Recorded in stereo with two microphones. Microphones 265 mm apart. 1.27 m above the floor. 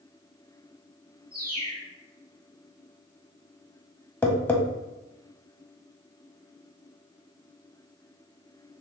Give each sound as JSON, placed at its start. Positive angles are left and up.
{"t": 1.3, "sound": "a bird", "side_deg": -35, "distance_m": 1.2}
{"t": 4.2, "sound": "tapping", "side_deg": 10, "distance_m": 0.6}